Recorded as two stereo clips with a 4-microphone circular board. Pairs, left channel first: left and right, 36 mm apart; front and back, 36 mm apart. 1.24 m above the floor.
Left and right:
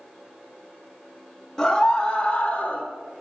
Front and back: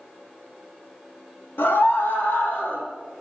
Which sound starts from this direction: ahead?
A scream, at 1.6 s.